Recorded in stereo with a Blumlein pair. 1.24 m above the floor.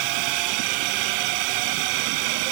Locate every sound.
0.0 s a drone: 45° right